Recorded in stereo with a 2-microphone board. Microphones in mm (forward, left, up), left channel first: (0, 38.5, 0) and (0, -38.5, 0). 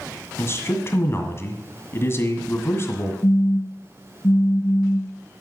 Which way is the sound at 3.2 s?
50° left (ahead or behind).